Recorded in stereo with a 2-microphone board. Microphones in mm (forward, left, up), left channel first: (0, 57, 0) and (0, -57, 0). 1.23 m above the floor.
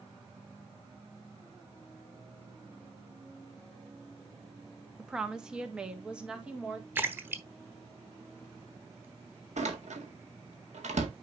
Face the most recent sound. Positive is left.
turn(degrees=-80)